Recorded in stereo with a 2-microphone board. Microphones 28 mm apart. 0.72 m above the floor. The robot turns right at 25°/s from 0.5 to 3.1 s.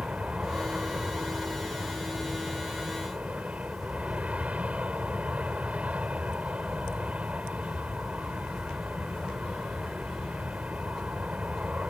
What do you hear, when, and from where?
0.0 s an aircraft: 125° right; by 11.9 s 60° right